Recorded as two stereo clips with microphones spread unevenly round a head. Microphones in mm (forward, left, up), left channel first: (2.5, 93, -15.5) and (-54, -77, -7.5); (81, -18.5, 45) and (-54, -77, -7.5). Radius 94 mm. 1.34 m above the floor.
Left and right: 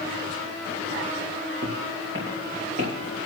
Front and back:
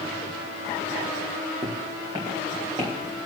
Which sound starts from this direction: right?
Footsteps, at 1.6 s.